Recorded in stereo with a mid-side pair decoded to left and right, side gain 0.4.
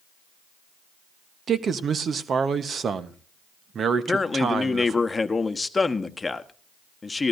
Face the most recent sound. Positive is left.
turn(degrees=25)